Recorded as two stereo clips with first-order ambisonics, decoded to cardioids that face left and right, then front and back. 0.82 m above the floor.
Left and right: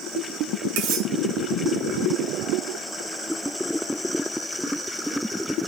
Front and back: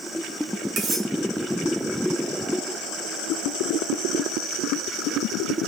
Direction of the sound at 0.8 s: 120° right.